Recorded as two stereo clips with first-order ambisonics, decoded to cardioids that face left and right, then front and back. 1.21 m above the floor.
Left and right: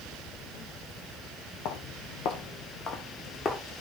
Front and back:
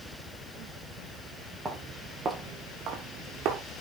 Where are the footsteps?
95° left, 2 m; by 3.6 s 160° left, 2 m.